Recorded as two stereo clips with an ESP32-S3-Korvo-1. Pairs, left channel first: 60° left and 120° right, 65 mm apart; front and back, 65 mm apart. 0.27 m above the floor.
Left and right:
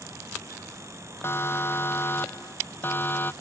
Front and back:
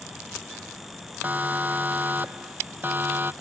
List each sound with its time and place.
1.2 s a siren: 115° left; by 3.3 s 120° left